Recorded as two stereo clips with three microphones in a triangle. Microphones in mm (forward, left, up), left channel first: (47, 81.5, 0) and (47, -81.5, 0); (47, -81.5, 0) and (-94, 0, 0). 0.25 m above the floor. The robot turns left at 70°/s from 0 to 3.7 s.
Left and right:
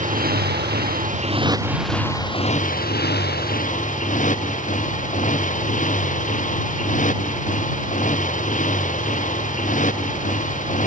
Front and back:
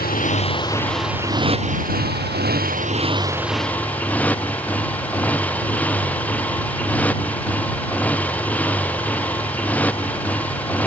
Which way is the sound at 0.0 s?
50° right.